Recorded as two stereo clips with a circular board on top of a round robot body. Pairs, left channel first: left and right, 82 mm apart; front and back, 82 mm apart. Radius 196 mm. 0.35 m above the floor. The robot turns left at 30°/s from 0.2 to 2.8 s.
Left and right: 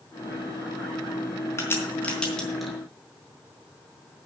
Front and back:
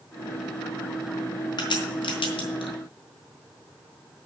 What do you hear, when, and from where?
1.6 s a crack: 30° left, 4 m; by 2.7 s 5° right, 4 m